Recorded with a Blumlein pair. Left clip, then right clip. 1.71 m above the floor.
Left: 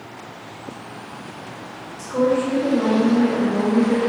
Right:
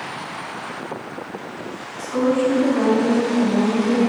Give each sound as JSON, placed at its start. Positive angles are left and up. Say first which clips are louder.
{"t": 2.0, "sound": "a woman speaking", "louder": "even", "azimuth_deg": 5, "distance_m": 1.0}